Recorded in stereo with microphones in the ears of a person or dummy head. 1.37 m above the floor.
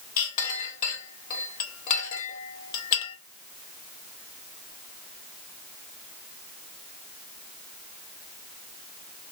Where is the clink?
50° left (ahead or behind), 1.1 m.